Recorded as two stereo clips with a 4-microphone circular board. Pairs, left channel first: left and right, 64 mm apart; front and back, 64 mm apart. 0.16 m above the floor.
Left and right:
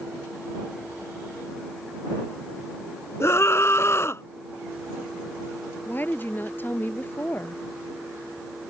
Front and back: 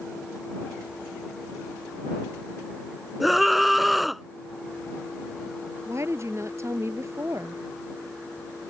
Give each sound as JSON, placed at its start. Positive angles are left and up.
{"t": 3.2, "sound": "a scream", "azimuth_deg": 95}
{"t": 5.8, "sound": "a woman speaking", "azimuth_deg": 145}